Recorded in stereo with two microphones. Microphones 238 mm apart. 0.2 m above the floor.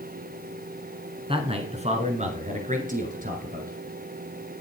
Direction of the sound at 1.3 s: 25° right (ahead or behind).